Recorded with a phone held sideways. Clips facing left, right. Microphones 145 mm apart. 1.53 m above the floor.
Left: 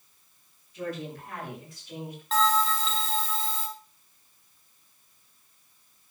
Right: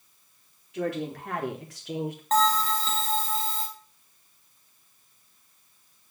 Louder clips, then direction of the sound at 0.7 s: Right 5 dB; 80° right.